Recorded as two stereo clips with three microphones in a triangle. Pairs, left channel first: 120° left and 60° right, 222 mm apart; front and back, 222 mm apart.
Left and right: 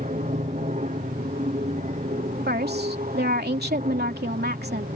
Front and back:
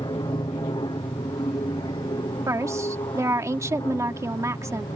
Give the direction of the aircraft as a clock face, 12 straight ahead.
2 o'clock.